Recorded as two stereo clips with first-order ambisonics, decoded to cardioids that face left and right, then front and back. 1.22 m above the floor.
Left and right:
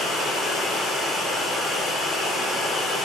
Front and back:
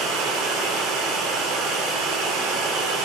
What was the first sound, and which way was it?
Running water, 170° left.